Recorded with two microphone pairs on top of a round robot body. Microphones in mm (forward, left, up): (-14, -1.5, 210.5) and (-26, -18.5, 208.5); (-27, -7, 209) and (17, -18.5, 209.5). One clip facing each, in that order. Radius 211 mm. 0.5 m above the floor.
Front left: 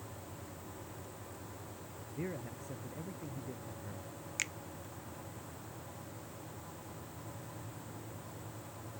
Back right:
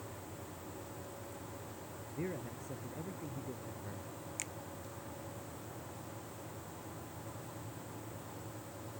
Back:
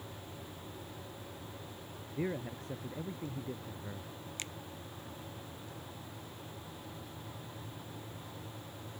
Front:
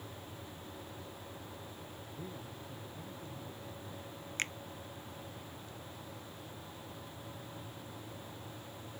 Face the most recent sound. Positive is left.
turn(degrees=10)